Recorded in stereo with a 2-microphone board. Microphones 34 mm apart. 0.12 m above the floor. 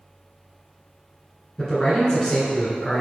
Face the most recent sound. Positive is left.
turn(degrees=15)  # may be behind; listen again after turning